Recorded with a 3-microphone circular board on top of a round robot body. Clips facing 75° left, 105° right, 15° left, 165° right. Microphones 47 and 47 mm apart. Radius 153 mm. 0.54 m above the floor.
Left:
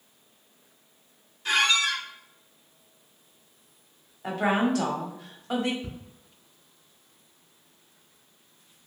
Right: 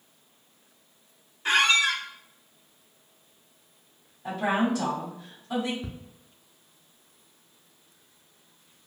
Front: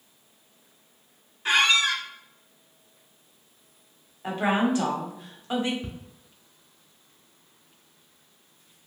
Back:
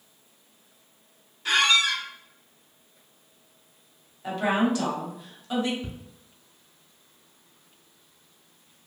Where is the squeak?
50° right, 0.6 m.